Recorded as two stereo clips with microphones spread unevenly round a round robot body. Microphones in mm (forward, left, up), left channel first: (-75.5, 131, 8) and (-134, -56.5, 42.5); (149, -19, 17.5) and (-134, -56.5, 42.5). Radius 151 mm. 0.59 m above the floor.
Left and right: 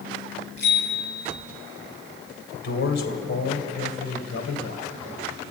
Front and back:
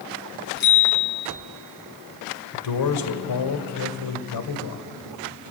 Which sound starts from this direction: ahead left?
A man speaking, at 2.5 s.